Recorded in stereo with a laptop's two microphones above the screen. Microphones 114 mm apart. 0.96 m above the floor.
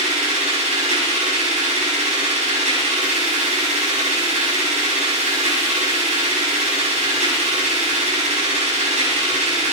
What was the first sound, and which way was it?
A machine running, 85° right.